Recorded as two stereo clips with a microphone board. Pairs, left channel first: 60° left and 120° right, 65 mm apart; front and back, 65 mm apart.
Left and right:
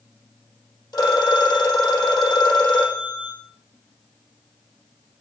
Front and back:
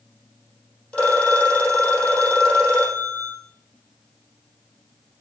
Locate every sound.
0.9 s a phone ringing: 70° left, 4 m